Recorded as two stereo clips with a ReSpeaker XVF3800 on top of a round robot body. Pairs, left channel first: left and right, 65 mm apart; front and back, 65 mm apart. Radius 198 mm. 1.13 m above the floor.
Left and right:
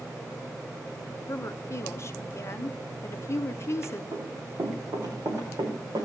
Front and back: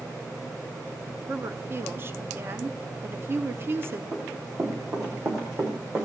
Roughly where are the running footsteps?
Behind right.